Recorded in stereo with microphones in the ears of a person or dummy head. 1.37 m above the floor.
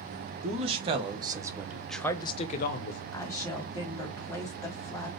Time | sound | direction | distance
0.4 | a man speaking | 35° right (ahead or behind) | 1.4 m
3.1 | a woman speaking | 20° left (ahead or behind) | 1.6 m